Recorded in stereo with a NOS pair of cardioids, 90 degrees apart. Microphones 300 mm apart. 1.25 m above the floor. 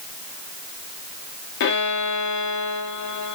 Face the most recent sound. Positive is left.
turn(degrees=65)